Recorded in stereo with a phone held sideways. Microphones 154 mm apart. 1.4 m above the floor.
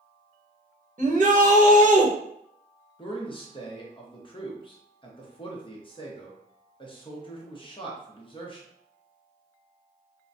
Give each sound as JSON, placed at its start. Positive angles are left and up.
{"t": 1.0, "sound": "a shout", "side_deg": -55, "distance_m": 1.0}
{"t": 3.0, "sound": "a man speaking", "side_deg": 35, "distance_m": 0.9}